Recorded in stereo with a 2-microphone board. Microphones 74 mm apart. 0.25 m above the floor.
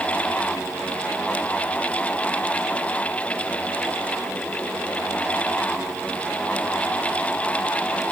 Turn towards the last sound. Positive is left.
No sound to turn to.